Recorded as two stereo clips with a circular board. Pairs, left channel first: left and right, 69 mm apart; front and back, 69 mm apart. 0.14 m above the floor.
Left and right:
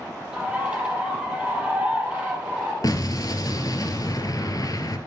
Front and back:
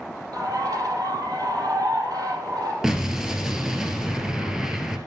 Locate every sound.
0.3 s a bird: 165° right, 4.5 m
2.8 s an explosion: 100° left, 2 m